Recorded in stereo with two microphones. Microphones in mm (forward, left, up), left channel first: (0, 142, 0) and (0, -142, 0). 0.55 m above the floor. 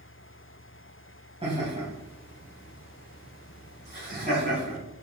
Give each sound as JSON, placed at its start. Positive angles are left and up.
{"t": 1.4, "sound": "laughter", "side_deg": -20, "distance_m": 3.0}